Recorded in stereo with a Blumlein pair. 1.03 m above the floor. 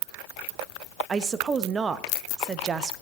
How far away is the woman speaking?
About 0.9 m.